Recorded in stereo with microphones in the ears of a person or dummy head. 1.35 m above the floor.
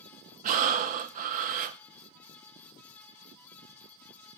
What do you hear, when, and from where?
0.4 s breathing: 45° right (ahead or behind), 1.0 m